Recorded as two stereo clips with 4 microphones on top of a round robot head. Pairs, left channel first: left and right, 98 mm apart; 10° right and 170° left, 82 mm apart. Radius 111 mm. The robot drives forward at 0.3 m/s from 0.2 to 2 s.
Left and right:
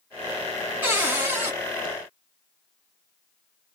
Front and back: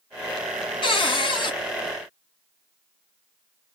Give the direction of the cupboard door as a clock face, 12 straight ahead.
1 o'clock.